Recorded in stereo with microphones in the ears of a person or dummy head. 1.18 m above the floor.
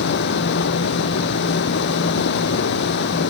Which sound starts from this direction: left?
Running water, at 0.0 s.